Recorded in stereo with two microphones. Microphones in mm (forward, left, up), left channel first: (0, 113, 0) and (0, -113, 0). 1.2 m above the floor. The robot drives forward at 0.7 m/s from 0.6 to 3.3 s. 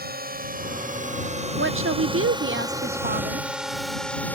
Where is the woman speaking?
55° right (ahead or behind); by 3.5 s 35° right (ahead or behind).